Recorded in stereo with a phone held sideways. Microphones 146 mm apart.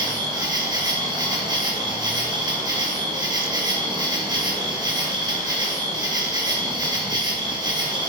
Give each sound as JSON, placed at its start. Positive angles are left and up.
{"t": 0.0, "sound": "an insect", "side_deg": -30, "distance_m": 1.3}